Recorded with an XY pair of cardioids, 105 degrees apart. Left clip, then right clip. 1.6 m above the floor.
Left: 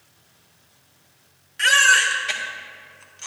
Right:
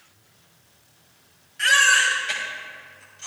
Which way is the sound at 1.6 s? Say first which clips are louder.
Left 1 dB; 50° left.